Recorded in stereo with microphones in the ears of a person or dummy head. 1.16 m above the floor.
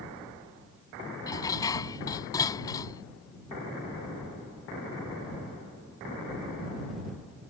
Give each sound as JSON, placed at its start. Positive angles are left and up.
{"t": 1.3, "sound": "dishes clattering", "side_deg": 15}